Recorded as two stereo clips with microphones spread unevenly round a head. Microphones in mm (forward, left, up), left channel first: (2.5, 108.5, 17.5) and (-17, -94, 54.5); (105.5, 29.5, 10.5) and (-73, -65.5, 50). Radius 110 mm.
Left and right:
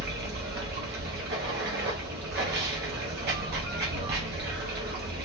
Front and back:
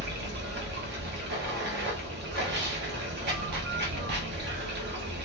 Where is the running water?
125° right, 0.8 m.